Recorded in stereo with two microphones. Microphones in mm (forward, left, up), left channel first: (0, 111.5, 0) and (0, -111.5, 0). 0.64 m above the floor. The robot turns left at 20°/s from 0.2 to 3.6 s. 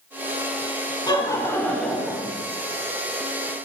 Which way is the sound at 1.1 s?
20° left (ahead or behind).